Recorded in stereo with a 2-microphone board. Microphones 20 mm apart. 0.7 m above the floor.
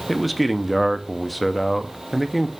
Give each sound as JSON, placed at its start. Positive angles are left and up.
{"t": 0.1, "sound": "a man speaking", "side_deg": 0, "distance_m": 0.7}